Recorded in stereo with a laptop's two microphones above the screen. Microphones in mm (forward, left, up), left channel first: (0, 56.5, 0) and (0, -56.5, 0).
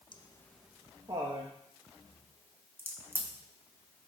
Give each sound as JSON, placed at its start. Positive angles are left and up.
{"t": 0.1, "sound": "laughter", "side_deg": 45, "distance_m": 0.6}
{"t": 2.8, "sound": "a crack", "side_deg": -20, "distance_m": 1.2}